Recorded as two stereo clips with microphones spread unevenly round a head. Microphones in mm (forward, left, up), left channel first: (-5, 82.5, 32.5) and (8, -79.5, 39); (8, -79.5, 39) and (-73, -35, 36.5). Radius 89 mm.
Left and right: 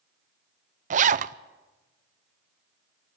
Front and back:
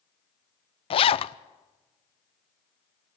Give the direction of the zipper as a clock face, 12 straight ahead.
1 o'clock.